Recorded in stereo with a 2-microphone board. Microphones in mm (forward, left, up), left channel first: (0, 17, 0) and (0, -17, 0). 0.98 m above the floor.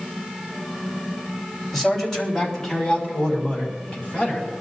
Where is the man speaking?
5° left (ahead or behind), 4 m; by 4.5 s 30° left (ahead or behind), 7 m.